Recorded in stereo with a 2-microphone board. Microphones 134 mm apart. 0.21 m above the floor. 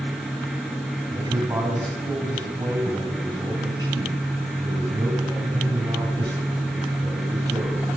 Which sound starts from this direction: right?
A man speaking, at 1.1 s.